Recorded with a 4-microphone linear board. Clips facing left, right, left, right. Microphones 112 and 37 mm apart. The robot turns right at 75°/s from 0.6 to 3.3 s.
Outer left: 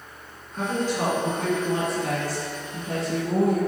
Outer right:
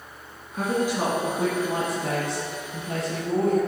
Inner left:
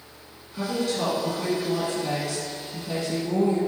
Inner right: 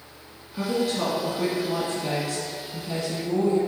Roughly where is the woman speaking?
Behind.